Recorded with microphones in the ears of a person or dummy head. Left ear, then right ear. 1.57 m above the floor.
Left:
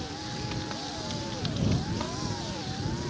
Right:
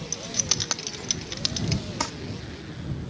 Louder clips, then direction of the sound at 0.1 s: Right 9 dB; 65° right (ahead or behind).